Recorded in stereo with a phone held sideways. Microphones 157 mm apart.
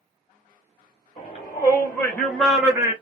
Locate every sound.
1.2 s a shout: 40° left (ahead or behind), 1.6 m; by 2.9 s 20° right (ahead or behind), 1.5 m